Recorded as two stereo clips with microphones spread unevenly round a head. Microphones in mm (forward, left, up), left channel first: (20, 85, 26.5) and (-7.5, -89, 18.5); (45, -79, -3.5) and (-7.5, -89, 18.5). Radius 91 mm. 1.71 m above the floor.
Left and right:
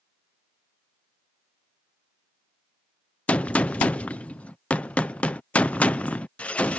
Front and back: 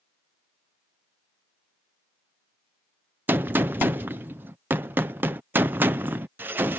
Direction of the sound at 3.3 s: 160° left.